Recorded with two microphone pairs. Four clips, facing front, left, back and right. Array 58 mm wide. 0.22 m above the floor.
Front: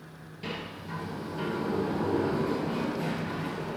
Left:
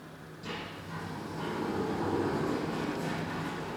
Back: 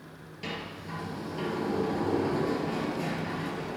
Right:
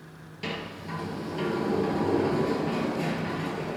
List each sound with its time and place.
0.4 s a sliding door: 105° right, 3 m